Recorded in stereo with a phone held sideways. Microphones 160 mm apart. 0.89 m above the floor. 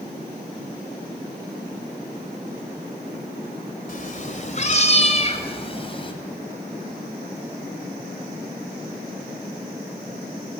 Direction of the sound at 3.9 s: 55° left (ahead or behind).